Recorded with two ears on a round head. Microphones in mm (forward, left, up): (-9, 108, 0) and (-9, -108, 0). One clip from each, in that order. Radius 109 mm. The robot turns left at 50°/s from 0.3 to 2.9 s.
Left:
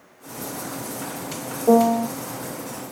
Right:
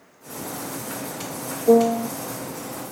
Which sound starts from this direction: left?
A piano, at 1.7 s.